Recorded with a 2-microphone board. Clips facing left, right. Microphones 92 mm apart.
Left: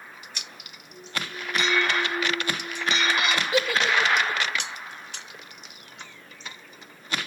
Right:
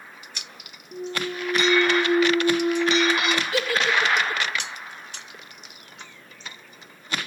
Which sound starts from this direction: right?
A clunk, at 0.9 s.